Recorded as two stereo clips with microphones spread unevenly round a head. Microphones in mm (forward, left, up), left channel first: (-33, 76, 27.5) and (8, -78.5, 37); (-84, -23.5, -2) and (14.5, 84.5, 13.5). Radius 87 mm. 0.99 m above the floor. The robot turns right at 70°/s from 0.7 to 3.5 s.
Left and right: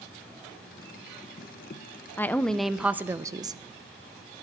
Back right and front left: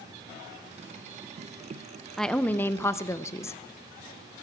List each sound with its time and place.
2.2 s a woman speaking: 155° left, 0.6 m; by 3.6 s 110° right, 0.6 m